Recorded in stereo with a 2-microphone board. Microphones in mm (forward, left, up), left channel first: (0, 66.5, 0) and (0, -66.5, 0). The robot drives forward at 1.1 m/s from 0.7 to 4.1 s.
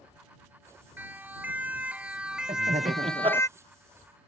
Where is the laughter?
55° right (ahead or behind); by 3.4 s 35° right (ahead or behind).